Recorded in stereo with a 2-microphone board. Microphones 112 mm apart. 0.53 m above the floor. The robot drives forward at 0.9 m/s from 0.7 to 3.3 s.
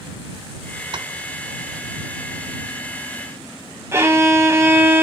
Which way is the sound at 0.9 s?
45° right (ahead or behind).